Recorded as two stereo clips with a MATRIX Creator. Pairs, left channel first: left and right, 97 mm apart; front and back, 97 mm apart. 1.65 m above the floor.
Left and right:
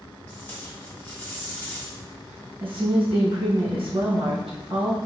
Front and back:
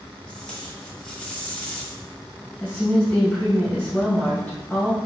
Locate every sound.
0.3 s tape being pulled: 65° left, 1.1 m
2.6 s a woman speaking: 75° right, 1.7 m